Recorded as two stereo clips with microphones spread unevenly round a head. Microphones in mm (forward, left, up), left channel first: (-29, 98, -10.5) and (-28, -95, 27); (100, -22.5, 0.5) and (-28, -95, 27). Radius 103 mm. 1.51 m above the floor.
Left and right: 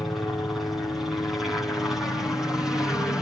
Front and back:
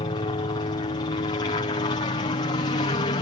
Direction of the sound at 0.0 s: 15° left.